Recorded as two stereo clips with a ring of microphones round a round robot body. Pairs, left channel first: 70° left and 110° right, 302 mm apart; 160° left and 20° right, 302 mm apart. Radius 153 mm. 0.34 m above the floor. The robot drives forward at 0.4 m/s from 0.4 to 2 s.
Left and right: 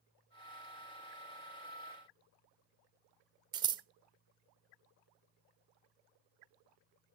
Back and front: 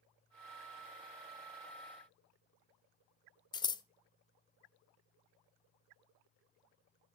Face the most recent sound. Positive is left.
turn(degrees=-160)